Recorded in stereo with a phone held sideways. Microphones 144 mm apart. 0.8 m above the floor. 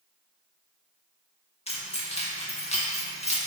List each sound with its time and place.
1.7 s keys jangling: 50° left (ahead or behind), 0.8 m